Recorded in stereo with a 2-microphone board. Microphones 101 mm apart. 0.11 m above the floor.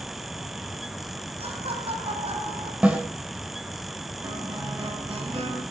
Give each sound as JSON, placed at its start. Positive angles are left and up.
{"t": 1.4, "sound": "laughter", "side_deg": -75, "distance_m": 5.0}
{"t": 2.8, "sound": "a snare drum", "side_deg": -10, "distance_m": 4.0}
{"t": 4.2, "sound": "a guitar", "side_deg": -45, "distance_m": 9.5}